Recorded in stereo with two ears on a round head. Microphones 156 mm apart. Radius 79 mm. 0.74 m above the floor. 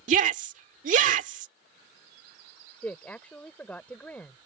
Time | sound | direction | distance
0.1 | a shout | 45° right (ahead or behind) | ?
2.8 | a woman speaking | 10° left (ahead or behind) | ?